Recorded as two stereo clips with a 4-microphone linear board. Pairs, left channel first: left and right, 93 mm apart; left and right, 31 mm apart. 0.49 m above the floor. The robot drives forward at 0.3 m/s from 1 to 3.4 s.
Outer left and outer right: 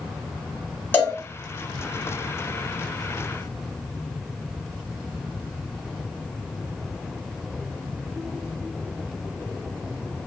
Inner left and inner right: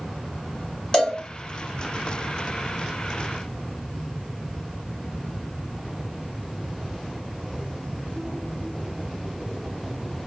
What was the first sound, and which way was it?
A cowbell, 20° left (ahead or behind).